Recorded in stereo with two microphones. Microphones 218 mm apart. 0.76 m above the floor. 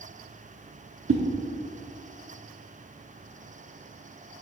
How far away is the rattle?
I don't hear a rattle.